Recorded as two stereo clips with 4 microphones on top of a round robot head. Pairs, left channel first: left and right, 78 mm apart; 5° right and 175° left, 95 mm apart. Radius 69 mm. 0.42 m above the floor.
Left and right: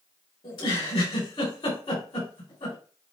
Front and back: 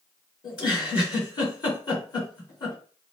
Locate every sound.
0.4 s a giggle: 40° left, 4 m